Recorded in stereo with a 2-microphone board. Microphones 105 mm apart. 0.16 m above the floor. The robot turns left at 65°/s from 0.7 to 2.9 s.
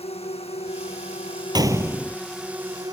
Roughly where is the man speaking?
No man speaking in this recording.